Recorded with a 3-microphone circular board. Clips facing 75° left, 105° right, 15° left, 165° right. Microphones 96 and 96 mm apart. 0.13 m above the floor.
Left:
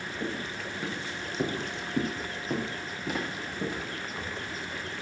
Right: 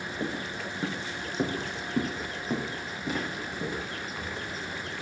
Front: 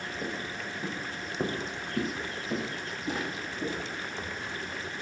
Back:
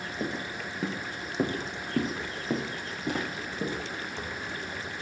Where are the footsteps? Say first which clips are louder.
Right 1 dB, back 4 dB; 165° right, 3.5 m; by 4.8 s 150° left, 5 m.